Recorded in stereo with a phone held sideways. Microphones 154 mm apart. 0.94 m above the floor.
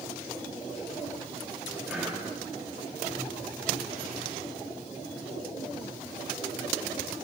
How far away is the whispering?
About 1.4 m.